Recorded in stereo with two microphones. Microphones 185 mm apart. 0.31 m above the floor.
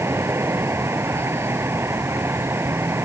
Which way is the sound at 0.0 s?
15° right (ahead or behind).